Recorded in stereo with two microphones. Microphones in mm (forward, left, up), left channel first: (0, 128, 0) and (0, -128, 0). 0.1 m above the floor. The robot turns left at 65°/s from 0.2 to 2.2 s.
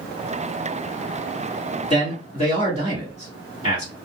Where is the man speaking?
25° left (ahead or behind), 1.8 m.